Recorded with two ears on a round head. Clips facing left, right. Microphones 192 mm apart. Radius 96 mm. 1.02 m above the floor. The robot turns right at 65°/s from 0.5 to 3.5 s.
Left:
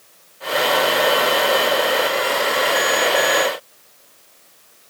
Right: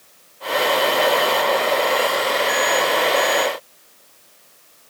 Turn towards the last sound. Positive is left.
No sound to turn to.